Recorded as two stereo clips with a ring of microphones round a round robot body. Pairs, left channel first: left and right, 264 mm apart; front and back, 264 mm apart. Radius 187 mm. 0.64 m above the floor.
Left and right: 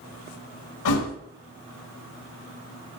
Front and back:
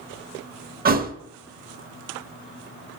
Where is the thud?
120° left, 0.8 m.